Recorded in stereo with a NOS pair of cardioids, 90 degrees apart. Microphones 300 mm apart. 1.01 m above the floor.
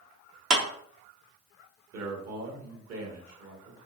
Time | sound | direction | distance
0.5 | a clap | 70° right | 1.4 m
1.9 | a man speaking | 55° right | 1.6 m